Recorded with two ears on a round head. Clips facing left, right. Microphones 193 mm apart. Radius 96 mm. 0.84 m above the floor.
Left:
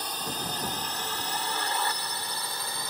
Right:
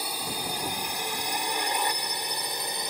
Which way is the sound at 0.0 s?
10° right (ahead or behind).